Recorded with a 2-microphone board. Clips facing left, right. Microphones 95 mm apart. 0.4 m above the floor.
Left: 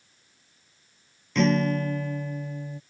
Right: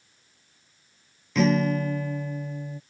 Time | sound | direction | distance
1.4 | a guitar | centre (ahead or behind) | ?